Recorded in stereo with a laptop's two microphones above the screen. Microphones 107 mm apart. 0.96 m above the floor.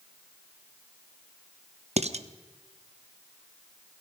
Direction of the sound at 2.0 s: 85° right.